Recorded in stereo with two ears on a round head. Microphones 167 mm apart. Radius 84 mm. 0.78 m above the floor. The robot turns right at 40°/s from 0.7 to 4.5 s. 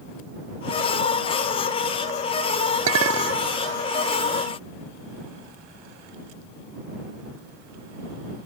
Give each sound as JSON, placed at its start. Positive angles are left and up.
{"t": 2.9, "sound": "a clink", "side_deg": -85}